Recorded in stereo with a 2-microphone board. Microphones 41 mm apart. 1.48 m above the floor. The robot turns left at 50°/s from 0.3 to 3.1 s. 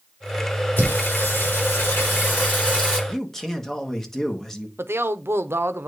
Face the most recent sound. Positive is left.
turn(degrees=-80)